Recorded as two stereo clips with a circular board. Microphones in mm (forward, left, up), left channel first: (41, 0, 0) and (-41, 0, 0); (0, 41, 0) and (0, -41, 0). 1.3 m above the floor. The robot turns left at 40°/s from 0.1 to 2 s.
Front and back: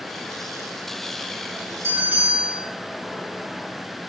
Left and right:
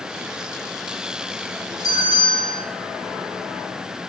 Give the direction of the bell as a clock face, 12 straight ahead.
8 o'clock.